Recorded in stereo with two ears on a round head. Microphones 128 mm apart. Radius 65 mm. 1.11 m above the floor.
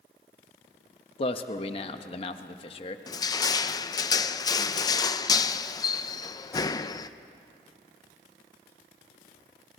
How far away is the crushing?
About 0.5 m.